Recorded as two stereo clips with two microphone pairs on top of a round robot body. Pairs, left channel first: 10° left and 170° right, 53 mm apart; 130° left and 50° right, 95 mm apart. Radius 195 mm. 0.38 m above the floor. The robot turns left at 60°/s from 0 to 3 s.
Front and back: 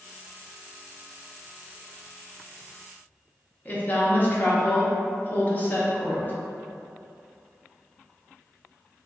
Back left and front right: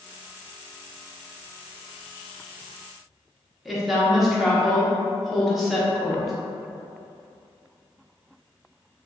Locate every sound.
3.6 s a woman speaking: 40° left, 1.0 m